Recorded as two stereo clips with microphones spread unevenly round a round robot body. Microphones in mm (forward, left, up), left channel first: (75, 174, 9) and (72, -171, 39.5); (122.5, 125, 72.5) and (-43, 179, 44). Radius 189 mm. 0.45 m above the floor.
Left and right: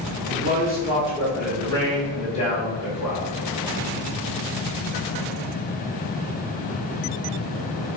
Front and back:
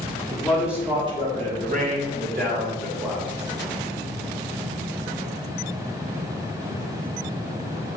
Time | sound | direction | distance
0.3 | a man speaking | 90° right | 0.7 m